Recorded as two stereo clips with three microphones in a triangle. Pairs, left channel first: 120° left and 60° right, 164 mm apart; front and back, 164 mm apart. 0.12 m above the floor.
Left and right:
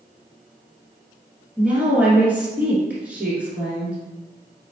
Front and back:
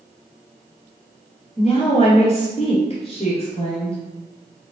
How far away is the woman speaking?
About 1.5 m.